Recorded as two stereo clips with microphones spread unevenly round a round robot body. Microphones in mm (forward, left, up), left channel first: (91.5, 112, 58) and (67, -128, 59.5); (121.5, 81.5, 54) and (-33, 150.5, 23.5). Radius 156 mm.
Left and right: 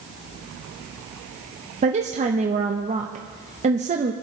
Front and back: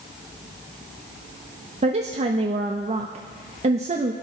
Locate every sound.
1.8 s a woman speaking: 155° right, 0.6 m